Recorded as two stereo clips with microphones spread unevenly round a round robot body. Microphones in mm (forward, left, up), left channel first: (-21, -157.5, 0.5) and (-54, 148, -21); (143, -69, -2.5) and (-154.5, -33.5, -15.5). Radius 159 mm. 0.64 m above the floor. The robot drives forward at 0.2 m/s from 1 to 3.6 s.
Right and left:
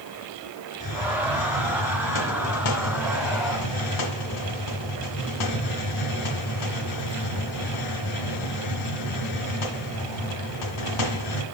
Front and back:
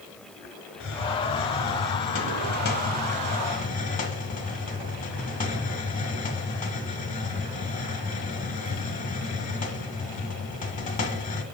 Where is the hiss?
55° right, 1.8 m; by 11.4 s 70° right, 1.6 m.